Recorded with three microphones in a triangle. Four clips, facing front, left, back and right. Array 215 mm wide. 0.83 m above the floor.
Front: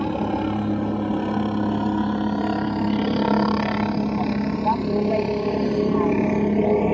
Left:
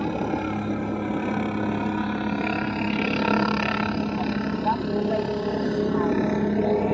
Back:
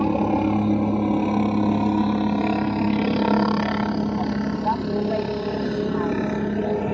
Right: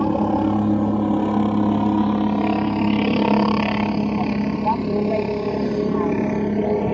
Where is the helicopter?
115° right; by 6.9 s 10° right.